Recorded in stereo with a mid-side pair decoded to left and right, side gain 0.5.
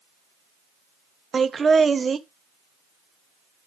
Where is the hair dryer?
No hair dryer in this recording.